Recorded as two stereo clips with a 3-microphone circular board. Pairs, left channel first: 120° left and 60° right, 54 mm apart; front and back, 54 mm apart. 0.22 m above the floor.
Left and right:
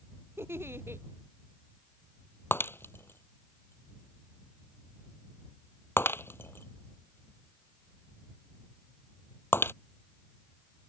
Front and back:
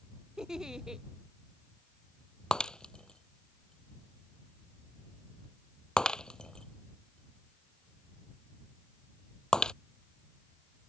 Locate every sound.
0.4 s a giggle: 105° right
2.5 s breaking glass: 75° left